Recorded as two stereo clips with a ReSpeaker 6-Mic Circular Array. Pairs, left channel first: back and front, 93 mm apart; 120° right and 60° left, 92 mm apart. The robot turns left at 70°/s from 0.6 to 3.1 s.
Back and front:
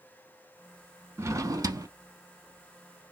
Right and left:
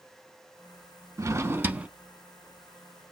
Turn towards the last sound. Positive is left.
turn(degrees=-95)